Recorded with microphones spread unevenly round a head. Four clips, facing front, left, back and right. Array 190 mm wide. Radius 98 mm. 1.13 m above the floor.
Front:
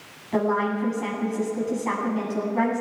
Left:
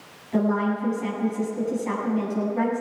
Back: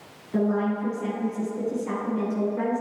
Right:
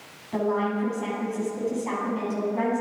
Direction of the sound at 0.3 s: 5° right.